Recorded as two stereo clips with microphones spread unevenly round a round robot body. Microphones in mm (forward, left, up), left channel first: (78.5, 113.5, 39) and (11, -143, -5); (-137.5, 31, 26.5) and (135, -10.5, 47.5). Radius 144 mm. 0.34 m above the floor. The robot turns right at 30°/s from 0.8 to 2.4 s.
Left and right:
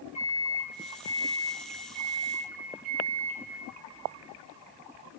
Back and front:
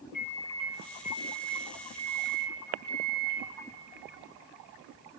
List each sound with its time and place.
0.1 s a microwave: 175° left, 3.5 m; by 3.4 s 135° right, 3.5 m